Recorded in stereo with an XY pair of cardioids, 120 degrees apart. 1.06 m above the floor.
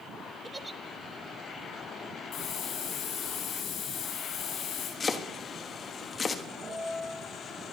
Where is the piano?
20° right, 4 m.